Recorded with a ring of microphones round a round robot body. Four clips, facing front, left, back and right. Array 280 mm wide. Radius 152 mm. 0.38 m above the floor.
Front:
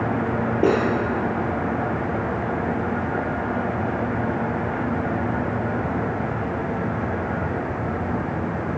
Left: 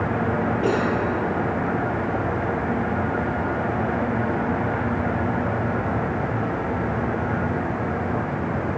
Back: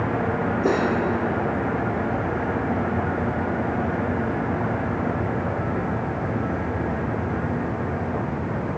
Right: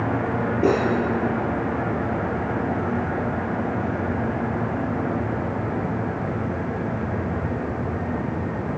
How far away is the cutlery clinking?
About 6.5 m.